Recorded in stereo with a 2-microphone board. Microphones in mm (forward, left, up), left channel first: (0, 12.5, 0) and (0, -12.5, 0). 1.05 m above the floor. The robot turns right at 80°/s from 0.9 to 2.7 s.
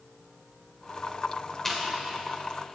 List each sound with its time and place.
1.6 s chewing: 15° left (ahead or behind), 2.5 m; by 1.8 s 5° left (ahead or behind), 2.5 m